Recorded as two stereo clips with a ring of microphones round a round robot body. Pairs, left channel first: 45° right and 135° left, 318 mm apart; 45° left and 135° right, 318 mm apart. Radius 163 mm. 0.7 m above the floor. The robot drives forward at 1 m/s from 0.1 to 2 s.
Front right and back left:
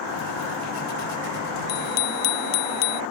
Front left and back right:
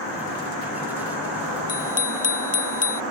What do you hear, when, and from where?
1.7 s a bicycle bell: 20° right